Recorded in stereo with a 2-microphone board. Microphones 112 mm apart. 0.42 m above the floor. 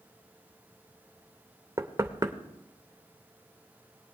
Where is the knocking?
30° right (ahead or behind), 0.7 m.